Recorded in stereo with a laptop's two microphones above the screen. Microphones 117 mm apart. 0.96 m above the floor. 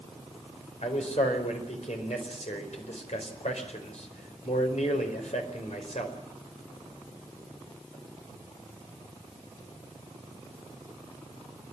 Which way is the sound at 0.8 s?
75° left (ahead or behind).